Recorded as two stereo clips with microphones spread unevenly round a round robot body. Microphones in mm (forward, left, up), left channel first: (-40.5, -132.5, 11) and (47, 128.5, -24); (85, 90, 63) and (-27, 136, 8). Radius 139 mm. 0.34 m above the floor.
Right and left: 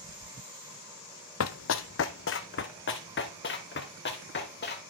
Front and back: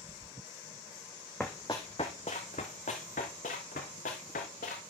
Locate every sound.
1.4 s running footsteps: 90° right, 0.5 m; by 4.8 s 60° right, 2.5 m